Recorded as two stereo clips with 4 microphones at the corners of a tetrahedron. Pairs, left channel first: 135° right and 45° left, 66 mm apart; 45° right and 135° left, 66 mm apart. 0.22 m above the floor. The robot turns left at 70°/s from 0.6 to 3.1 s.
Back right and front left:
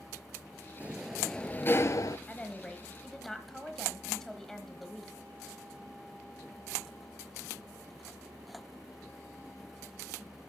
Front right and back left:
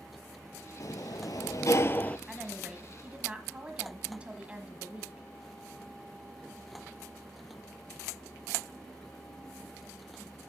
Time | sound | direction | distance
0.8 | a sliding door | 20° right | 0.6 m
2.3 | a woman speaking | 150° right | 1.3 m